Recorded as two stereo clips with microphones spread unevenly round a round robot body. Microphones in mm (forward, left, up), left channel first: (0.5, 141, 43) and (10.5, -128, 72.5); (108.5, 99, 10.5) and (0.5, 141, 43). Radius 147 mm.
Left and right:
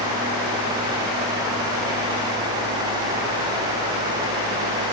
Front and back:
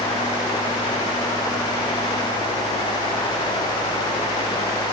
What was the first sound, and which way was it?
Only background noise.